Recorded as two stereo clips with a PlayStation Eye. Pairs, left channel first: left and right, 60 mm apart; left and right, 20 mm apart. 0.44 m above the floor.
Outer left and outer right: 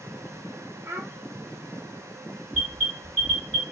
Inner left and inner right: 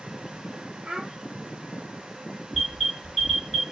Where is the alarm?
20° left (ahead or behind), 2.5 m.